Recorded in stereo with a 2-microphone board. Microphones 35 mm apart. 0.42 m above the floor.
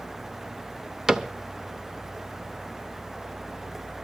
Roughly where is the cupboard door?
Centre.